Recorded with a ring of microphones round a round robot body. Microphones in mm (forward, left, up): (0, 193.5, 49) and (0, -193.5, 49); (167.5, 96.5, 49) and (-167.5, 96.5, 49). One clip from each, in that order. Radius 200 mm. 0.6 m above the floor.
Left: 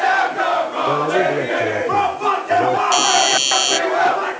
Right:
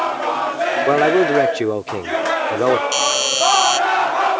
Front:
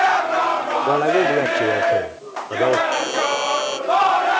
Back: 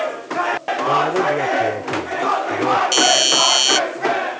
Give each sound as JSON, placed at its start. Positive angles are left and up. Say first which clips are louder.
{"t": 0.9, "sound": "a man speaking", "louder": "right 3 dB, even", "azimuth_deg": -65}
{"t": 2.9, "sound": "a doorbell", "louder": "left 3 dB, back 6 dB", "azimuth_deg": 180}